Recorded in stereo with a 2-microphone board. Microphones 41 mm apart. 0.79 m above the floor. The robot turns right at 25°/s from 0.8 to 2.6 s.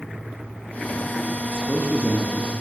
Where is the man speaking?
45° right (ahead or behind), 0.8 m; by 2.6 s 20° right (ahead or behind), 0.8 m.